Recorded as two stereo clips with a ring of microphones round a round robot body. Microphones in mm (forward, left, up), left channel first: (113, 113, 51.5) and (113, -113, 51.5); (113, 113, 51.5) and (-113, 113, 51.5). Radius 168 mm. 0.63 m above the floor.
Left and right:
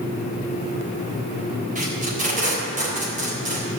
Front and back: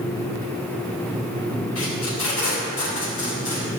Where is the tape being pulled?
35° right, 4 m.